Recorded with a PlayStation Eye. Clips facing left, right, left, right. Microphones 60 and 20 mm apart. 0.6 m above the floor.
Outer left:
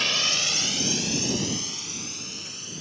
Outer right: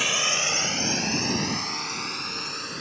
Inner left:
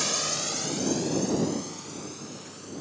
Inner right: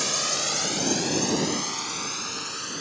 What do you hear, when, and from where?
0.0 s a drone: 5° right (ahead or behind); by 2.8 s 55° right (ahead or behind)